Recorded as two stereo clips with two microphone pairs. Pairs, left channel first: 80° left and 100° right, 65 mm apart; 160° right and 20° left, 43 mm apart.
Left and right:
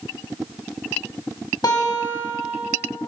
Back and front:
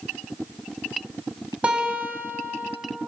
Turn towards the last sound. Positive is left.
turn(degrees=75)